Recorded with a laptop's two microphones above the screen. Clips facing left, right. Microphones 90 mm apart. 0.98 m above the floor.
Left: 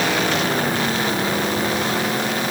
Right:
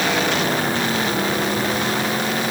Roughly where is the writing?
I don't hear writing.